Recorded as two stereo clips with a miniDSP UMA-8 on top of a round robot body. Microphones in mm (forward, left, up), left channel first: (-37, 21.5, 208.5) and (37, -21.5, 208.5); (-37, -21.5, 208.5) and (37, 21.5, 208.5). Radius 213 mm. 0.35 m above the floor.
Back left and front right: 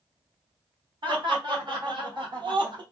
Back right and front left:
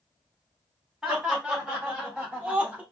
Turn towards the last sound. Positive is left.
turn(degrees=-40)